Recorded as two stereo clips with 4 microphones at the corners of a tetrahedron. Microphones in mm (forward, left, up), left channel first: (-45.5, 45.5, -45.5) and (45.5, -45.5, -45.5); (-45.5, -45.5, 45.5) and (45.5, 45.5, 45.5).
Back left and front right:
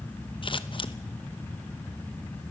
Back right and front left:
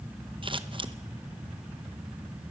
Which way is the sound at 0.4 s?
90° left.